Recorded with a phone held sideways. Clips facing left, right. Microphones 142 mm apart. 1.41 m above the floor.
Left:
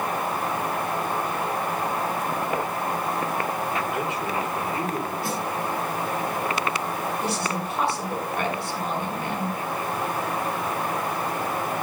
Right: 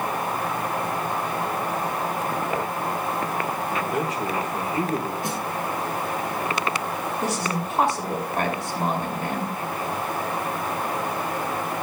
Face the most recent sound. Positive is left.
turn(degrees=-45)  # may be behind; listen again after turning